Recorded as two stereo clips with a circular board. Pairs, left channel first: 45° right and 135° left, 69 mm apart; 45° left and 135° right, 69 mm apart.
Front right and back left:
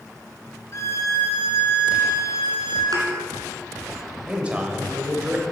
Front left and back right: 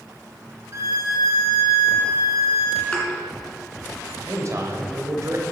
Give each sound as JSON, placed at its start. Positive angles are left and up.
{"t": 0.7, "sound": "a violin", "azimuth_deg": -90, "distance_m": 3.0}
{"t": 2.9, "sound": "a thud", "azimuth_deg": 115, "distance_m": 2.5}
{"t": 4.3, "sound": "a man speaking", "azimuth_deg": -160, "distance_m": 1.7}